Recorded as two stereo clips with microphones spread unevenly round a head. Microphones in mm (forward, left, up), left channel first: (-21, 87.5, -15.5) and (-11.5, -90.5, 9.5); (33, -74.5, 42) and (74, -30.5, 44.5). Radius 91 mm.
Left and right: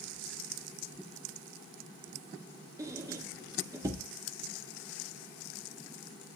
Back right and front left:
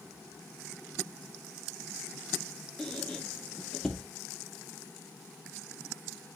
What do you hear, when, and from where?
2.8 s a squeak: 55° right, 0.5 m